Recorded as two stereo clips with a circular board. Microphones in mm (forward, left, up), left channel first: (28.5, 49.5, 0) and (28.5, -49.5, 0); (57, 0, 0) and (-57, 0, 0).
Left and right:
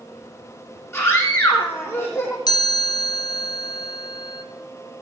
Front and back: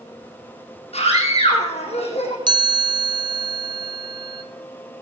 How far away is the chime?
About 0.9 m.